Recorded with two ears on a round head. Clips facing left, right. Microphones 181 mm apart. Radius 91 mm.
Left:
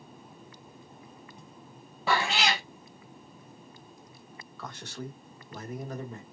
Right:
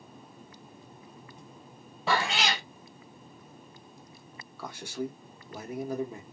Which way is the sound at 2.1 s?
Centre (ahead or behind).